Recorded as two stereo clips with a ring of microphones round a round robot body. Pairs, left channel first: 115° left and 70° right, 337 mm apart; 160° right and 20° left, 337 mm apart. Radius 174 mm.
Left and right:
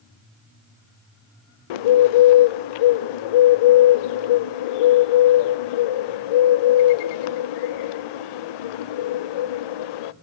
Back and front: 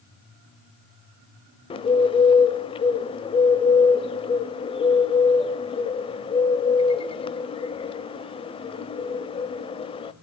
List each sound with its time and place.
1.7 s a bird: 125° left, 0.5 m